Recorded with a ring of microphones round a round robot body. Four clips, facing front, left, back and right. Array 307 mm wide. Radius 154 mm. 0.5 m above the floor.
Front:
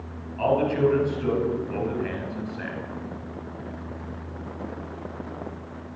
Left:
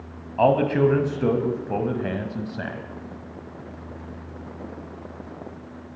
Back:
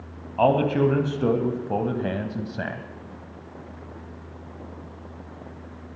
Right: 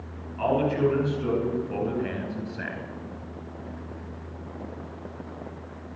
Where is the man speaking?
130° left, 4 m; by 2.8 s 155° left, 3.5 m.